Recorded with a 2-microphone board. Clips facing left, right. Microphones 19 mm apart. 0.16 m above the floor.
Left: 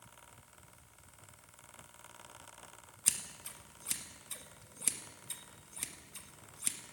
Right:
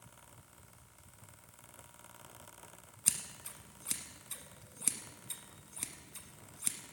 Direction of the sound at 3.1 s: 5° left (ahead or behind).